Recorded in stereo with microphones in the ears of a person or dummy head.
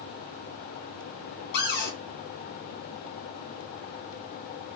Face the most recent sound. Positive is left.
turn(degrees=65)  # may be behind; listen again after turning